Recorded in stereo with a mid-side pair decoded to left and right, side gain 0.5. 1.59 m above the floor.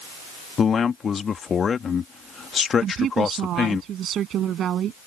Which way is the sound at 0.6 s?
40° left.